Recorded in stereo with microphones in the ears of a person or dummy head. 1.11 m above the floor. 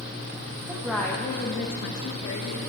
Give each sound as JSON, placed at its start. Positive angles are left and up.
{"t": 0.7, "sound": "a woman speaking", "side_deg": -15, "distance_m": 0.9}